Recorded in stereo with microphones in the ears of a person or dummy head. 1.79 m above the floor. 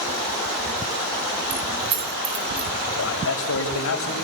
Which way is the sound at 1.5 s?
30° right (ahead or behind).